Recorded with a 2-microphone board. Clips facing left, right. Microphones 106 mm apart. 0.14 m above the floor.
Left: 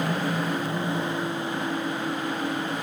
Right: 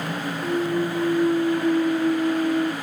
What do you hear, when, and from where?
0.4 s a clunk: 85° right